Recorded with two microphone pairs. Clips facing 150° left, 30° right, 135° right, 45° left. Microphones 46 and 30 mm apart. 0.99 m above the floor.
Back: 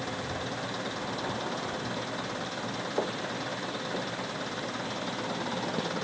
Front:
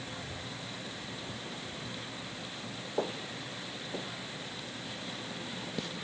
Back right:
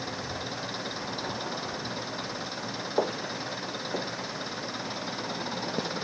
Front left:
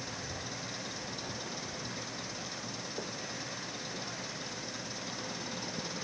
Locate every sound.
0.0 s an engine running: 175° left
3.0 s footsteps: 125° right; by 5.9 s 135° right